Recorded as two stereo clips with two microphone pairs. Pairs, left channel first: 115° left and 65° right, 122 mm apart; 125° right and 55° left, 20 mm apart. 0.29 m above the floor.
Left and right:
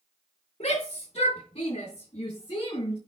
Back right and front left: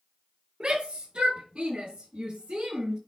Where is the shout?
85° left, 4.5 m; by 3.0 s 70° left, 4 m.